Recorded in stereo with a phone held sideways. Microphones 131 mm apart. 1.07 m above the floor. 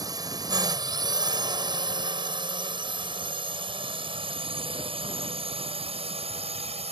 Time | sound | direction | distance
0.0 | a drone | 30° right (ahead or behind) | ?